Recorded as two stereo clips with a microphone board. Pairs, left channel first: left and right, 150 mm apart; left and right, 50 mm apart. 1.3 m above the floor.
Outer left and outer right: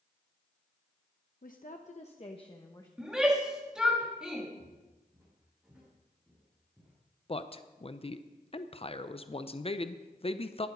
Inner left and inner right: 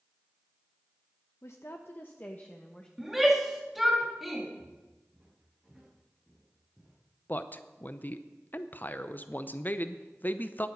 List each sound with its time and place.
1.4 s a woman speaking: 70° left (ahead or behind), 0.8 m; by 2.9 s 25° left (ahead or behind), 1.1 m
3.0 s a shout: 5° right (ahead or behind), 3 m
4.6 s footsteps: 15° right (ahead or behind), 4.5 m; by 6.9 s 5° right (ahead or behind), 6.5 m
7.3 s a man speaking: 40° left (ahead or behind), 0.6 m